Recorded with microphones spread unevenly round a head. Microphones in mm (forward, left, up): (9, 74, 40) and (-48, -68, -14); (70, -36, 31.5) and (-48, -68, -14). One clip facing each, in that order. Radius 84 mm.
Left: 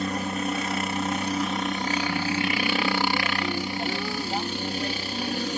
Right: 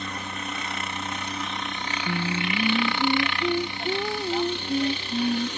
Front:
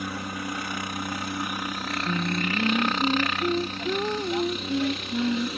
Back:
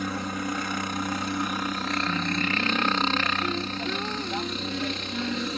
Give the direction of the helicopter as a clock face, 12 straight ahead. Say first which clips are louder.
Left 7 dB, back 2 dB; 8 o'clock.